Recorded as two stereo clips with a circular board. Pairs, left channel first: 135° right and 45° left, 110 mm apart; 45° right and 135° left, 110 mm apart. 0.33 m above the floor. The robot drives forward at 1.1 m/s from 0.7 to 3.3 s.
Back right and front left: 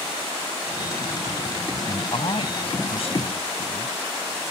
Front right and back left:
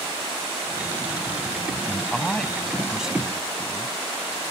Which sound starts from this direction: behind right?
A man speaking, at 1.9 s.